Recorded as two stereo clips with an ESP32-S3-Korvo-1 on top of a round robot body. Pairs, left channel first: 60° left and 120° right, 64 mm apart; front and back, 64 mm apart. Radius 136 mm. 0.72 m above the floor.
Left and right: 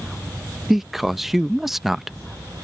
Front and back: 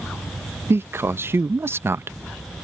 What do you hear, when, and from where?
0.7 s a man speaking: 155° left